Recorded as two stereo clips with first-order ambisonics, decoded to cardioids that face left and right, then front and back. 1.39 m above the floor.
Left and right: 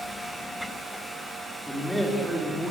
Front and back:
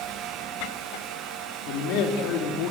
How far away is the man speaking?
About 3.5 m.